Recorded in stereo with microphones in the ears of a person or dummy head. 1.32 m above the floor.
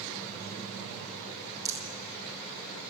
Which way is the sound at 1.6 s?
20° right (ahead or behind).